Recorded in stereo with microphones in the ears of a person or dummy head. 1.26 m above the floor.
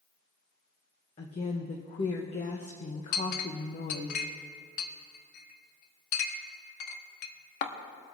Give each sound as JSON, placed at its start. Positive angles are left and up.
{"t": 1.2, "sound": "a woman speaking", "side_deg": 35, "distance_m": 0.8}
{"t": 3.1, "sound": "a clink", "side_deg": 50, "distance_m": 1.0}